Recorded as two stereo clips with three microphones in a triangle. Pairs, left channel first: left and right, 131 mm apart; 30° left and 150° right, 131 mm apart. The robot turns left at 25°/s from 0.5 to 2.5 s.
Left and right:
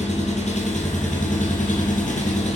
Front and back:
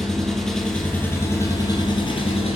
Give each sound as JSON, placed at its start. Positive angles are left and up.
{"t": 0.0, "sound": "an engine running", "azimuth_deg": 115, "distance_m": 2.0}